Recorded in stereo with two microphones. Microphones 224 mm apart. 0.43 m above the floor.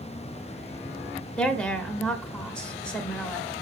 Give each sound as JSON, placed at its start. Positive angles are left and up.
{"t": 1.4, "sound": "a woman speaking", "side_deg": 5, "distance_m": 1.4}